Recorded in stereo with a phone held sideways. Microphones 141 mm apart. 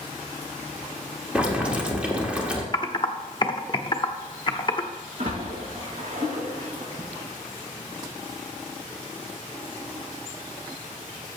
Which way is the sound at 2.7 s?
35° left (ahead or behind).